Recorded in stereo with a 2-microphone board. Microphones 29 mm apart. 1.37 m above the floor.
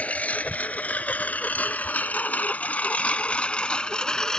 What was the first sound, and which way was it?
A lawn mower, 55° left (ahead or behind).